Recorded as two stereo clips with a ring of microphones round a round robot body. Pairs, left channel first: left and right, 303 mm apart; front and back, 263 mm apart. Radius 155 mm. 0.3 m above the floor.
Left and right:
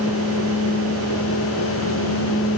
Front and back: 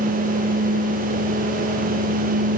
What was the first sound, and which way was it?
Only background noise.